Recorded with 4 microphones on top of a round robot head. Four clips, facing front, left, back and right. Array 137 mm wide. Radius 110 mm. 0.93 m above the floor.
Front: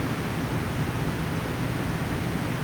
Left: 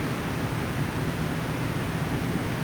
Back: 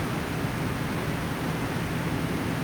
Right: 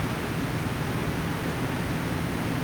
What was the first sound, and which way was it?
Only background noise.